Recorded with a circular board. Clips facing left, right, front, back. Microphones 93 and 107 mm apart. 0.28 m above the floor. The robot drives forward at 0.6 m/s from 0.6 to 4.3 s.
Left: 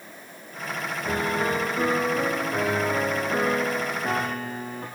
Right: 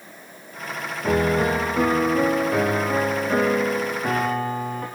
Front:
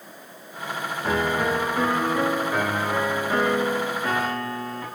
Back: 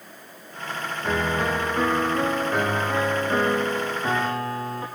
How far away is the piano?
About 3.5 m.